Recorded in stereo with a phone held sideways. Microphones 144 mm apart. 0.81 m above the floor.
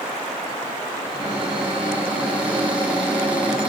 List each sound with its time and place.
1.0 s a cupboard door: 10° right (ahead or behind), 8.5 m